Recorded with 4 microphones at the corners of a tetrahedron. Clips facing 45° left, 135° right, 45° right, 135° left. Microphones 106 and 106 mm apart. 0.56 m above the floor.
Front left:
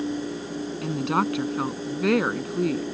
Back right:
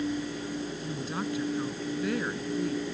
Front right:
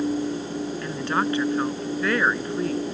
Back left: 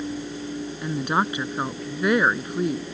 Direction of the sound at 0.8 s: 60° left.